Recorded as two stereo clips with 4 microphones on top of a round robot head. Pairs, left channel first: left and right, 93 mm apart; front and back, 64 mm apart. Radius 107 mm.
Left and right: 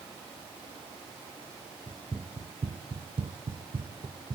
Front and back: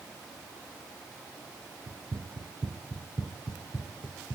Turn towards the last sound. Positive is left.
turn(degrees=-50)